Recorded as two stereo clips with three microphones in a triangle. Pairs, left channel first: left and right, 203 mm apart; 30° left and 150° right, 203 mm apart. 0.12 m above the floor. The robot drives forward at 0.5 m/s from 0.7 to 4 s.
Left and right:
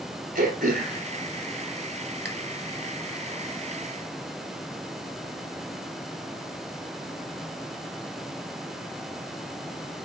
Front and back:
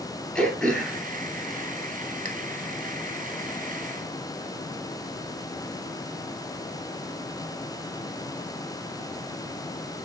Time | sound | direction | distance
0.3 | throat clearing | 55° right | 1.1 m